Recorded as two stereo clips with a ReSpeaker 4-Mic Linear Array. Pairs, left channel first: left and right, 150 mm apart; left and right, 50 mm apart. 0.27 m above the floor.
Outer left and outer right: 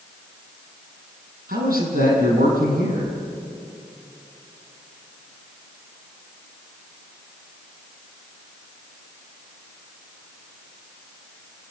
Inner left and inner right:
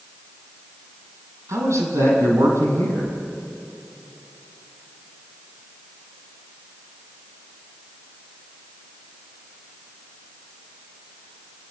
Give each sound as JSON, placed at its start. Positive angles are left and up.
{"t": 1.5, "sound": "a man speaking", "side_deg": -85, "distance_m": 7.5}